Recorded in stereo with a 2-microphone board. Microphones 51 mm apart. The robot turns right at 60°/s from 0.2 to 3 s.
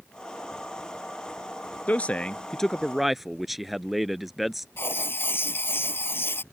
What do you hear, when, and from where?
1.9 s a man speaking: 120° left; by 4.7 s 175° right
4.8 s writing: 45° left (ahead or behind)